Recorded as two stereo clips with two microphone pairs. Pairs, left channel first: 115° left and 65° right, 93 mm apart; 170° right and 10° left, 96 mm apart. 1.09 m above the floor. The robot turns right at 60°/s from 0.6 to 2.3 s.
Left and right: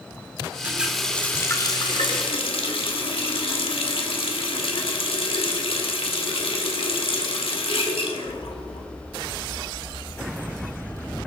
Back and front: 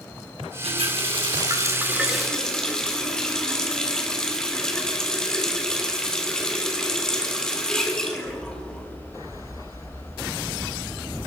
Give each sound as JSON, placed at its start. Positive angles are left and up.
{"t": 0.6, "sound": "a running tap", "azimuth_deg": 5, "distance_m": 1.9}